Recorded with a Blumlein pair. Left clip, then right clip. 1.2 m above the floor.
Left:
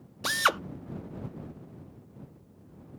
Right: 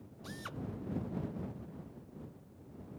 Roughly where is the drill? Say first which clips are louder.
Left 21 dB; ahead left.